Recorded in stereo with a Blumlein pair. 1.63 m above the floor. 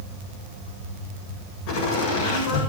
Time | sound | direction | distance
1.7 | laughter | 45° left | 8 m